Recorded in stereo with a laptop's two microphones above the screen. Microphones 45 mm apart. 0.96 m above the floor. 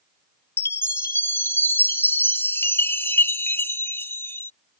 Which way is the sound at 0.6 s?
65° left (ahead or behind).